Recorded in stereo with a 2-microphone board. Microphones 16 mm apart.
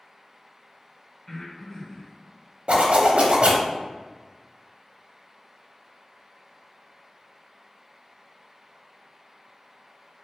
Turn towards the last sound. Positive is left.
turn(degrees=-85)